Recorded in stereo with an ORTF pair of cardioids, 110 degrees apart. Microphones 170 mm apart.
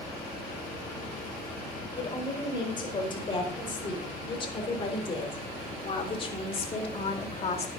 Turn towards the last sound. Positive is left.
turn(degrees=35)